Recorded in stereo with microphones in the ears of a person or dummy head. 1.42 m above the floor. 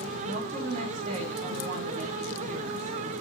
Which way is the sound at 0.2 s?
45° right (ahead or behind).